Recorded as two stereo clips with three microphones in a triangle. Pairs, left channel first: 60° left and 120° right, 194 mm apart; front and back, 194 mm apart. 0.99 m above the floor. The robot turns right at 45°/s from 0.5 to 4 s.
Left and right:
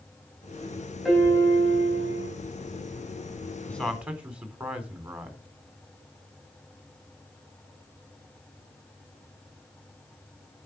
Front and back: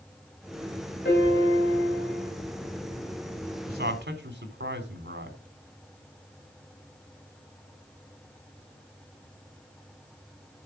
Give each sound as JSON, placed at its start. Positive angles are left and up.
{"t": 1.1, "sound": "a piano", "azimuth_deg": -30, "distance_m": 5.0}
{"t": 3.7, "sound": "a man speaking", "azimuth_deg": 140, "distance_m": 3.0}